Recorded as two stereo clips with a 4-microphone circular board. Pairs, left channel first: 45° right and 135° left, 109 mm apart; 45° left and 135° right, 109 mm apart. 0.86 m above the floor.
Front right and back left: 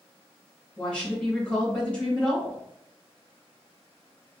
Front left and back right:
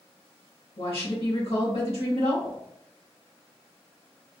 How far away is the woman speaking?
About 1.7 m.